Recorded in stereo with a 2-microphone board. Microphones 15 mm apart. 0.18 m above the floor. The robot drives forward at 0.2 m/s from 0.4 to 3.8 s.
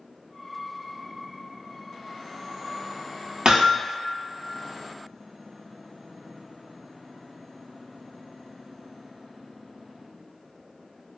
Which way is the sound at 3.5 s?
65° right (ahead or behind).